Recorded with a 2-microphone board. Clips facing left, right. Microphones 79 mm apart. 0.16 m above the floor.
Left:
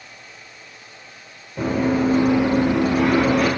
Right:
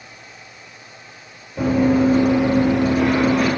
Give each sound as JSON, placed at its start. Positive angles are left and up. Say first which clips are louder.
{"t": 1.6, "sound": "running footsteps", "louder": "right 4 dB", "side_deg": 5, "distance_m": 1.3}